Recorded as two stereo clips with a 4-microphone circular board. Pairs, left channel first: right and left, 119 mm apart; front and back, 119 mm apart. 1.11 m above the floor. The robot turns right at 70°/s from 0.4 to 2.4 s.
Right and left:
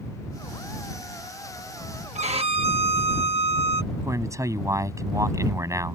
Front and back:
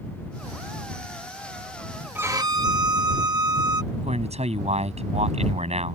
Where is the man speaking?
155° left.